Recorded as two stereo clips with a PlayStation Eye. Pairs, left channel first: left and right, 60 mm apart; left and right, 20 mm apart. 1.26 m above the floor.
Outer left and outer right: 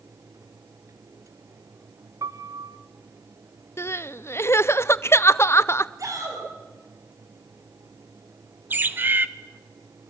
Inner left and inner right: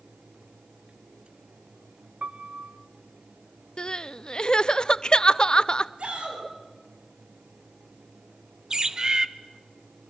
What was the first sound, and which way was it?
A piano, 75° right (ahead or behind).